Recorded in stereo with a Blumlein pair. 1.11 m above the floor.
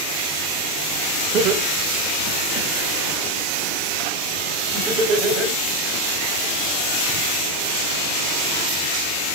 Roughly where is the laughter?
Ahead right.